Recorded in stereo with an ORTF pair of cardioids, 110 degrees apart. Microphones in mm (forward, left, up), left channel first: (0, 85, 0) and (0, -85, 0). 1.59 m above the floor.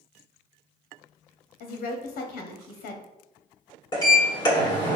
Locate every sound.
1.6 s a woman speaking: 60° left, 0.7 m
3.9 s a sliding door: 25° left, 1.6 m